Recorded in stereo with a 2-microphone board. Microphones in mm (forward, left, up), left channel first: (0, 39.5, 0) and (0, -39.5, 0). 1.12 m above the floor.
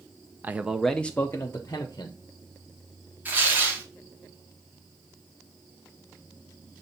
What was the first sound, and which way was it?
A man speaking, 25° right (ahead or behind).